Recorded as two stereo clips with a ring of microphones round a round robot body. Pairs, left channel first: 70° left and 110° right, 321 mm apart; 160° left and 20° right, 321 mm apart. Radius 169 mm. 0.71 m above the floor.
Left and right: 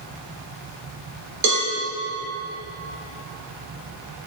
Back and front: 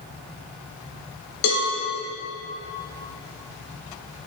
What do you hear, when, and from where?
1.4 s a cowbell: 160° right, 3 m